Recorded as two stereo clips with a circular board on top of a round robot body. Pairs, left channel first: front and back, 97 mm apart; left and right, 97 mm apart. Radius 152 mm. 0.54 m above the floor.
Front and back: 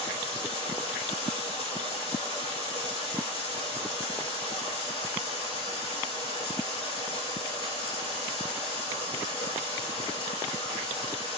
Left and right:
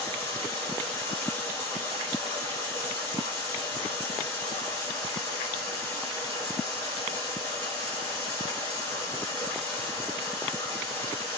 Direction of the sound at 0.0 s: 20° left.